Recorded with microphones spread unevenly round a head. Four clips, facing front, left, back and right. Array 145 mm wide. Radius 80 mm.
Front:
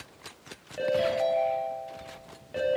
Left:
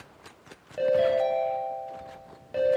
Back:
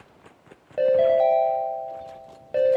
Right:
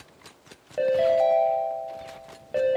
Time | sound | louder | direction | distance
0.8 | a ringtone | right 2 dB, back 8 dB | 150° right | 4 m